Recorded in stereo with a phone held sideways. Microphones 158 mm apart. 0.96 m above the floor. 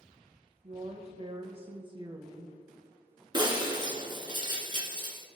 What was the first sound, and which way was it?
A woman speaking, 45° right (ahead or behind).